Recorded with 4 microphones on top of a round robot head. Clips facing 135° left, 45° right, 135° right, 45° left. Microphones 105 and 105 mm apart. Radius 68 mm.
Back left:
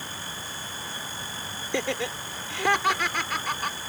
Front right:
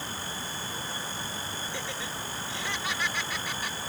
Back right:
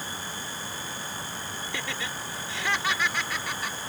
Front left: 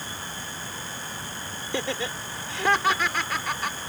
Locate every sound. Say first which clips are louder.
1.7 s laughter: back left 8 dB, front left 8 dB; 105° left; by 3.8 s 90° left